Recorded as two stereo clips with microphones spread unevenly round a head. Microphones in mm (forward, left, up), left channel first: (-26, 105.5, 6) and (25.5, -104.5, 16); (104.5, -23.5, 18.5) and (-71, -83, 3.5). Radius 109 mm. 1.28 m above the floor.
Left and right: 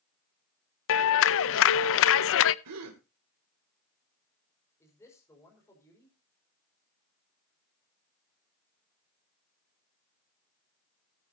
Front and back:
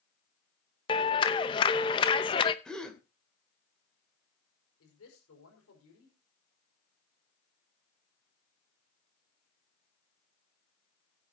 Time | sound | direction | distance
0.9 | a clap | 80° left | 0.6 m
2.6 | a gasp | 65° right | 2.5 m
4.8 | a man speaking | 25° left | 5 m